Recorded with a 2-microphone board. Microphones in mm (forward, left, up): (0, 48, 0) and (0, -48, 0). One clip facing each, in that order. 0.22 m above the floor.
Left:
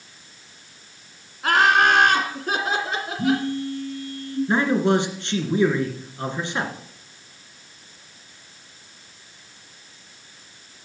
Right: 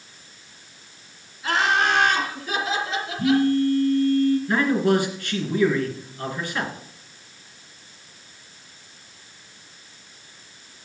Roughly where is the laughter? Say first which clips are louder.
Left 4 dB; left.